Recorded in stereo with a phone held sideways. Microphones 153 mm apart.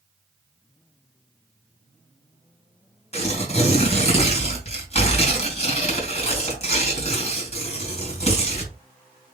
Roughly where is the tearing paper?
Left.